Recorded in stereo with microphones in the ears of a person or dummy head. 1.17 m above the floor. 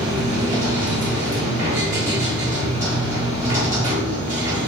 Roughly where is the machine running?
Centre.